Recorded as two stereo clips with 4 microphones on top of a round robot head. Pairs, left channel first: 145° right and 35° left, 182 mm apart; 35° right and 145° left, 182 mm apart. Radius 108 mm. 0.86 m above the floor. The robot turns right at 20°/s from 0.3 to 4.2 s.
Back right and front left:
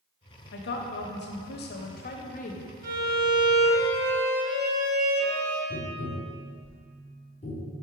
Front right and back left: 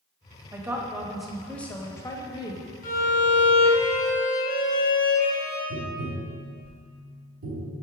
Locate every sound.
0.5 s a woman speaking: 140° right, 1.0 m; by 2.6 s 100° right, 1.0 m
2.8 s a violin: 5° left, 1.6 m; by 5.6 s 30° left, 1.6 m
5.7 s tapping: 160° left, 1.6 m